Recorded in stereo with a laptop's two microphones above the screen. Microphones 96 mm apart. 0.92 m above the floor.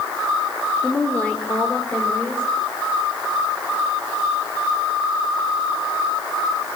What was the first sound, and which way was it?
A woman speaking, 10° left (ahead or behind).